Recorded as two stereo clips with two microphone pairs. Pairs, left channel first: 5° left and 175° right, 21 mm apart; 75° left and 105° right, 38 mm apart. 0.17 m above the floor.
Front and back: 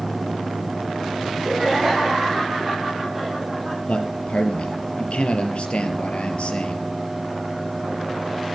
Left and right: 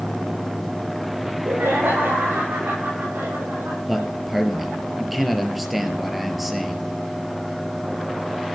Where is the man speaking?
15° right, 3.5 m.